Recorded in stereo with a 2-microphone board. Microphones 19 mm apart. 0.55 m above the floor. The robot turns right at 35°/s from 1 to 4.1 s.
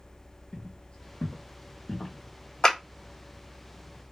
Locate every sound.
0.5 s footsteps: 40° left (ahead or behind), 1.0 m; by 2.1 s 25° left (ahead or behind), 1.0 m
2.6 s a clap: 40° left (ahead or behind), 1.3 m; by 2.8 s 35° left (ahead or behind), 1.3 m